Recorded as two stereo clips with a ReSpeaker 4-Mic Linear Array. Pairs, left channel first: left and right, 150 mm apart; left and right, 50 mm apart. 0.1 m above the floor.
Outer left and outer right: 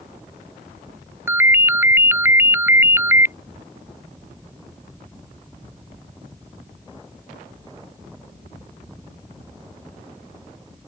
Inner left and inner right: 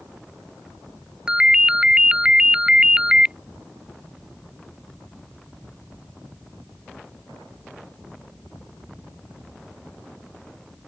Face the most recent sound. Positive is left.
turn(degrees=-15)  # may be behind; listen again after turning